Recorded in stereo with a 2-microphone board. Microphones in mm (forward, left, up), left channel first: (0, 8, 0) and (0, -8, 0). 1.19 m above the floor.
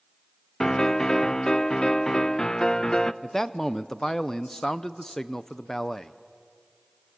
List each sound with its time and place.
0.6 s a piano: 45° left (ahead or behind), 0.5 m
3.2 s a man speaking: 25° left (ahead or behind), 0.6 m